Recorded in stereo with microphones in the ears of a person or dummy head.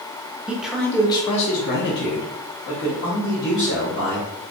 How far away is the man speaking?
About 0.8 m.